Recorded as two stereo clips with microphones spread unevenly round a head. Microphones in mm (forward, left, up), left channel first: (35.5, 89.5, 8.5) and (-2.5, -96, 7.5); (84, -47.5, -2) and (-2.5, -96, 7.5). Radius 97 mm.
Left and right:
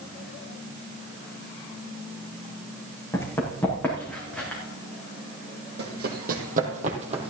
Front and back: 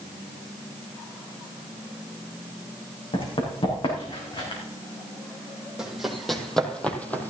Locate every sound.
3.1 s running footsteps: straight ahead, 5.5 m; by 4.6 s 5° right, 5.5 m
5.8 s running footsteps: 70° right, 3 m; by 7.3 s 40° right, 2.5 m